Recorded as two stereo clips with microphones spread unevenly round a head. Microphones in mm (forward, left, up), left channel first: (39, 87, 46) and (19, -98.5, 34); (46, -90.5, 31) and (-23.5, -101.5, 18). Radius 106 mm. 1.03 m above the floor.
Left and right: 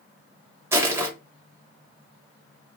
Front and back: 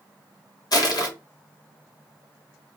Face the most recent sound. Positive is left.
turn(degrees=-20)